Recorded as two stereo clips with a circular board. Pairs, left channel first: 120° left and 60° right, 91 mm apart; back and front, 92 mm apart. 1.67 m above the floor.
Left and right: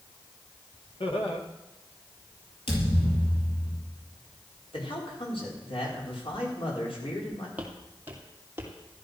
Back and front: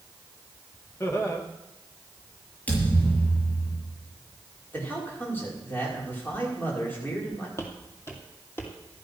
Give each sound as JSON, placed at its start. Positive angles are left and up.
{"t": 1.0, "sound": "laughter", "azimuth_deg": 120, "distance_m": 2.5}
{"t": 2.7, "sound": "a thud", "azimuth_deg": 105, "distance_m": 7.0}
{"t": 4.7, "sound": "a man speaking", "azimuth_deg": 110, "distance_m": 5.5}
{"t": 7.6, "sound": "footsteps", "azimuth_deg": -130, "distance_m": 2.5}